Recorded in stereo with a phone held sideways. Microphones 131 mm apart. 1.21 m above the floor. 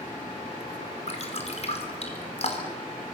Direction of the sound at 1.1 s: 50° left (ahead or behind).